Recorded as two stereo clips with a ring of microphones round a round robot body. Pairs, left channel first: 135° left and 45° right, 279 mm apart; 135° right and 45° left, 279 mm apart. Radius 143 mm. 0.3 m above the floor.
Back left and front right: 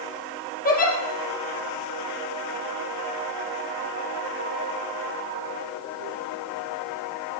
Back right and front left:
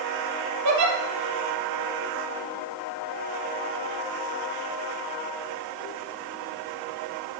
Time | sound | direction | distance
0.7 | a giggle | 75° left | 4.5 m